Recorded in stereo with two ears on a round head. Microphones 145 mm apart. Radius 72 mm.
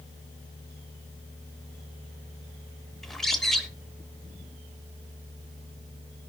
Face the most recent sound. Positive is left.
turn(degrees=0)  # may be behind; listen again after turning